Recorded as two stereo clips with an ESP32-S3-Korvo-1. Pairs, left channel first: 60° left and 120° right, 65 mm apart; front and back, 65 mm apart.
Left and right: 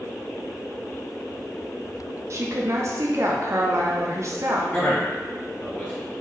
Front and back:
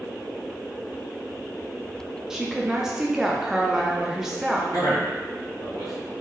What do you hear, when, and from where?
2.3 s a woman speaking: 100° right, 0.5 m
4.7 s a man speaking: 15° right, 2.0 m